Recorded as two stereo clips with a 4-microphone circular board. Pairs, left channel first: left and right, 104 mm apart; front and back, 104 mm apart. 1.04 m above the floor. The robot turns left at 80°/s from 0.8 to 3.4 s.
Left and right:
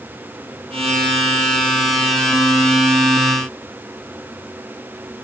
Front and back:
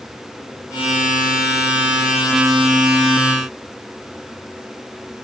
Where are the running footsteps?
No running footsteps in this recording.